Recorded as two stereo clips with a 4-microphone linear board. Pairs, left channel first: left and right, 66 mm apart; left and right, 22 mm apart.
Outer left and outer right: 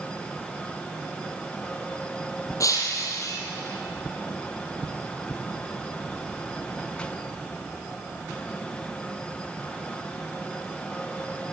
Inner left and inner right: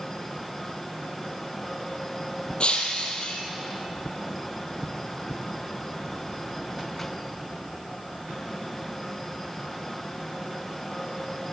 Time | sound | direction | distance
2.6 | breaking glass | 50° left (ahead or behind) | 3 m